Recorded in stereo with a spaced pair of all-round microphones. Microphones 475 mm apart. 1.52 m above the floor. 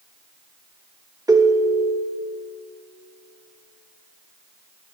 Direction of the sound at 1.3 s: 5° right (ahead or behind).